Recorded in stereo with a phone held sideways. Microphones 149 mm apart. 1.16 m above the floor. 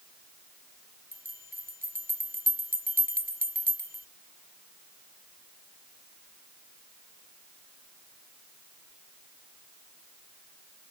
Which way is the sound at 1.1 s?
70° right (ahead or behind).